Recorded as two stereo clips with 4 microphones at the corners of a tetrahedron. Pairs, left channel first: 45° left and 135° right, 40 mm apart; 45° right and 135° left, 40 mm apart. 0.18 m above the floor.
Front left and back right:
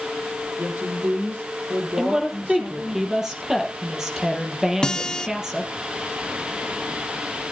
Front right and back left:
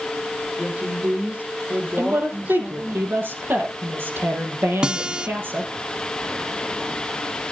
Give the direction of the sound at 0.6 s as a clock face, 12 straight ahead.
6 o'clock.